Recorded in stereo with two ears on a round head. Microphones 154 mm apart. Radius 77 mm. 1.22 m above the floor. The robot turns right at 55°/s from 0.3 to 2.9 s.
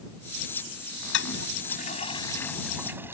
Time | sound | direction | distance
1.1 | a toilet flushing | 85° left | ?